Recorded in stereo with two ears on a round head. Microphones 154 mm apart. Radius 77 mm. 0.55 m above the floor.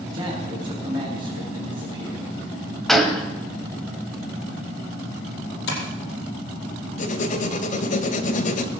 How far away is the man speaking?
About 4 m.